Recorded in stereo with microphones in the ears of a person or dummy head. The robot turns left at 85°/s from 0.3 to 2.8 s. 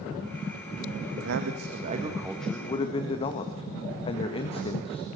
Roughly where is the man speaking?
Right.